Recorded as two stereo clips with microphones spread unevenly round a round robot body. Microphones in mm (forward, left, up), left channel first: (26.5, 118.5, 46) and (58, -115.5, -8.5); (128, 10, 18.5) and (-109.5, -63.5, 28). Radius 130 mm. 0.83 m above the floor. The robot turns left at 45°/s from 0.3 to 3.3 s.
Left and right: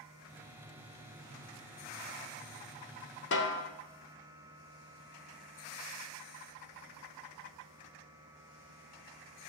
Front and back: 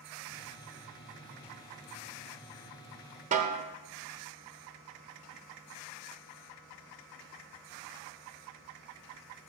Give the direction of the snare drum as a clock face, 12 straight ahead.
7 o'clock.